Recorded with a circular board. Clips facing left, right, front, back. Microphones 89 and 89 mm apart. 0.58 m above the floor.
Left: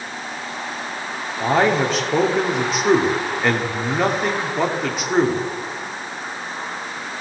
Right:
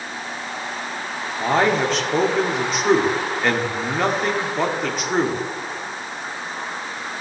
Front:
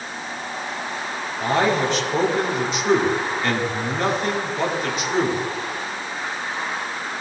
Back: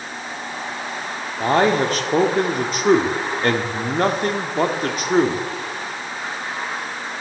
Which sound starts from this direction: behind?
A man speaking, at 1.4 s.